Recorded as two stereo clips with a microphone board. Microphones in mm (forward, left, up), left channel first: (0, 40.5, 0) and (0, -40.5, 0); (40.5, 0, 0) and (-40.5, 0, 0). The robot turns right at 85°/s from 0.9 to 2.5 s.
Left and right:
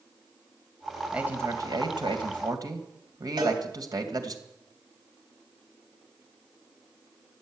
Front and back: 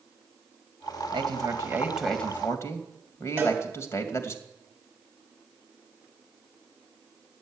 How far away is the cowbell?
About 5 m.